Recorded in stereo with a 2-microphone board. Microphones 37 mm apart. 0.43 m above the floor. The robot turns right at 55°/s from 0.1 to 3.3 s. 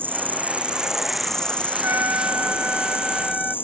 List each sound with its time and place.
0.0 s an insect: 60° right; by 3.6 s 115° left
1.7 s a trumpet: 105° right; by 3.5 s 15° right